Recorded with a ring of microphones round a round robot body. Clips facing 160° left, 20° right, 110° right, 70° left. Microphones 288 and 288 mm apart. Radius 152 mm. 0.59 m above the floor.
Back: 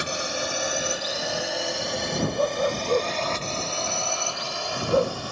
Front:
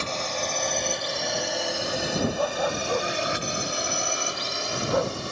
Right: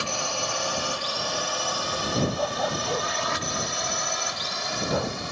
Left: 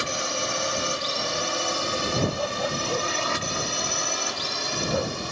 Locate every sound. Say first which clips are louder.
0.0 s a drone: back 1 dB, left 2 dB; 100° left; by 5.3 s 30° left
2.4 s a dog barking: back 2 dB, even; 140° right